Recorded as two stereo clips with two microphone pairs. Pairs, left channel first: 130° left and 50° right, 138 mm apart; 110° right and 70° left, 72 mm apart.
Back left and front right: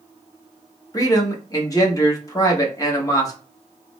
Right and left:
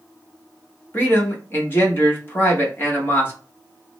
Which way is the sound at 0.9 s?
170° right.